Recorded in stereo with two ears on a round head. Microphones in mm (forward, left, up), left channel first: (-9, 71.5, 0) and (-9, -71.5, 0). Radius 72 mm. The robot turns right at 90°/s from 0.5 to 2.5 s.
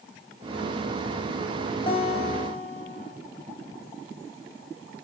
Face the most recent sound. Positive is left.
turn(degrees=85)